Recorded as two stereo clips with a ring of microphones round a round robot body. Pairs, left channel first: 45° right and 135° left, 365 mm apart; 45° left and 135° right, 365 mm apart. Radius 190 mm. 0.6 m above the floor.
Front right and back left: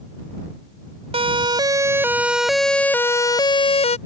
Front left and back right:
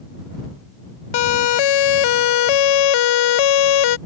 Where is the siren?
60° left; by 4.0 s 30° left.